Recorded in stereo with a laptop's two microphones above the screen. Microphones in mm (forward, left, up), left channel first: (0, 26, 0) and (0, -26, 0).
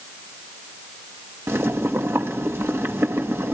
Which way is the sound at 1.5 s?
55° right (ahead or behind).